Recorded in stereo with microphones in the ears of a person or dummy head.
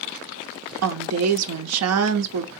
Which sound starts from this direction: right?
A woman speaking, at 0.8 s.